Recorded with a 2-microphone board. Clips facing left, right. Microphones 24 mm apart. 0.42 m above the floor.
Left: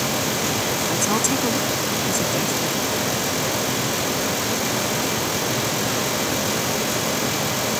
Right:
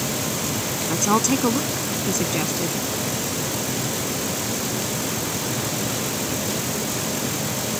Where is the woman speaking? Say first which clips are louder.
Right 4 dB; 20° right (ahead or behind).